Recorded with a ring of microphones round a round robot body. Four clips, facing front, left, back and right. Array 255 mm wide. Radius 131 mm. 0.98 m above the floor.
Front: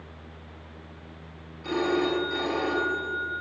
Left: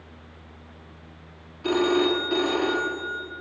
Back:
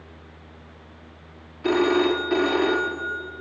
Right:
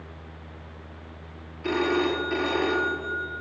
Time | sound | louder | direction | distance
1.6 | a phone ringing | left 3 dB, back 6 dB | 165° left | 1.5 m